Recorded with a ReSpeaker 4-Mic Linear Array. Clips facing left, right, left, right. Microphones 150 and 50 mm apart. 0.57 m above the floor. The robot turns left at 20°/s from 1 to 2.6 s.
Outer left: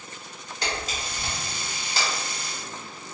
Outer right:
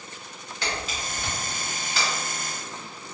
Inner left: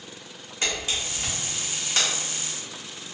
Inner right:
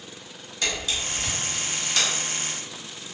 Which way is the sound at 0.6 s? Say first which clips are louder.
Even, even; 45° left (ahead or behind).